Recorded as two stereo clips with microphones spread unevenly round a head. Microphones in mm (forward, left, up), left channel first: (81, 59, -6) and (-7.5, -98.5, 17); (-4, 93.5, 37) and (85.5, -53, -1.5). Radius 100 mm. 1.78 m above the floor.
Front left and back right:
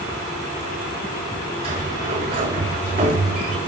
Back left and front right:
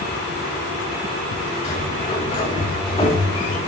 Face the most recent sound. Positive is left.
turn(degrees=180)